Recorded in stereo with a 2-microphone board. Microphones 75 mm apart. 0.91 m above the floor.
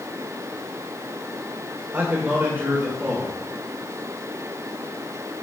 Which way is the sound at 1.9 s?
25° right (ahead or behind).